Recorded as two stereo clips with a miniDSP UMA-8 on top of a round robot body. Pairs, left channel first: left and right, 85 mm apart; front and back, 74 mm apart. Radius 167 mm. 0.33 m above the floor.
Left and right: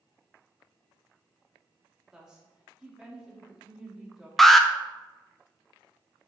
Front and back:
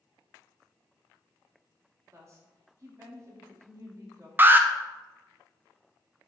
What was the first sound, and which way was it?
A woman speaking, 170° right.